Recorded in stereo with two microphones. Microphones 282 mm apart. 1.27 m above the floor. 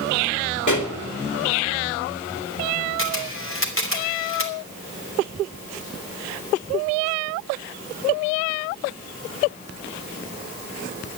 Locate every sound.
0.7 s a pop: 80° left, 2.5 m
3.0 s a camera shutter: 45° left (ahead or behind), 2.5 m